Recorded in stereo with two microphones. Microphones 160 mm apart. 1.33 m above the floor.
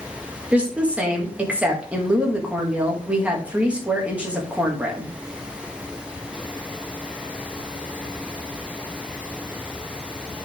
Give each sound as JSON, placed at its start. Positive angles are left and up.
{"t": 0.5, "sound": "a woman speaking", "side_deg": -10, "distance_m": 2.0}